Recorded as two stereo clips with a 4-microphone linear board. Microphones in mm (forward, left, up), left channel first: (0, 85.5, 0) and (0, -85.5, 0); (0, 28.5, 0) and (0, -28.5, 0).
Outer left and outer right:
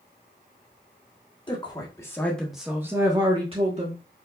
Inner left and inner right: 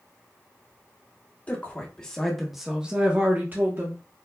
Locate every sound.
1.5 s a woman speaking: 25° left (ahead or behind), 1.1 m; by 4.0 s 45° right (ahead or behind), 1.1 m